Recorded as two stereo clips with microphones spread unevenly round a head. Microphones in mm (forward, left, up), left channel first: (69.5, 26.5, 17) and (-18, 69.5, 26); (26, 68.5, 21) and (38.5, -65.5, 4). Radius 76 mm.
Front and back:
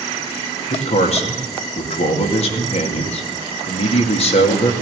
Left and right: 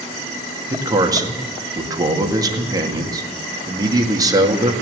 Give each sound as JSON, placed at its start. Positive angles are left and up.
{"t": 0.7, "sound": "a man speaking", "azimuth_deg": -25, "distance_m": 2.0}